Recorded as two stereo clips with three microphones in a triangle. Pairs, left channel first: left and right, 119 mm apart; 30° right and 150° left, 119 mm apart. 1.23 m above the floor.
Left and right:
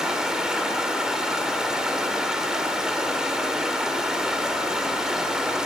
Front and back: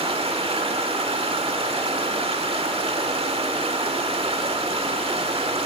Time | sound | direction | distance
0.0 | running water | 175° right | 2 m